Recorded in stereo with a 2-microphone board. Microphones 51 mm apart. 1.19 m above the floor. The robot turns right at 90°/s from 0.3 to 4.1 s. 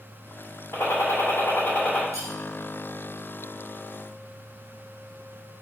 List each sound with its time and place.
0.7 s a gunshot: 65° left, 2.5 m; by 2.0 s straight behind, 2.5 m
2.1 s cutlery clinking: 85° right, 3 m; by 2.3 s 70° right (ahead or behind), 3 m